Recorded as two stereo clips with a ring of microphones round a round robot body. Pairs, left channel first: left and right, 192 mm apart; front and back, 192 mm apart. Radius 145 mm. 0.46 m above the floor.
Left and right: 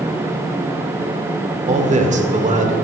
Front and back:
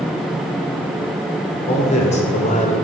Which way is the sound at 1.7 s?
50° right.